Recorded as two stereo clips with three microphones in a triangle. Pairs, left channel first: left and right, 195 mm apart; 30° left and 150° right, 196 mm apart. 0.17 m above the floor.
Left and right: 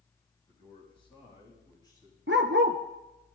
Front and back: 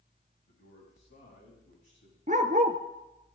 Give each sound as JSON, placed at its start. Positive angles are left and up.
{"t": 0.5, "sound": "a man speaking", "azimuth_deg": 30, "distance_m": 8.0}
{"t": 2.3, "sound": "a dog barking", "azimuth_deg": -100, "distance_m": 1.1}